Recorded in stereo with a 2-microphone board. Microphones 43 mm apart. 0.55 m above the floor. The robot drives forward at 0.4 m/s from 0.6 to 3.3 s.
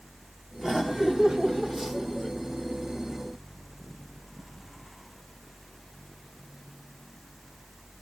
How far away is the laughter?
About 0.9 m.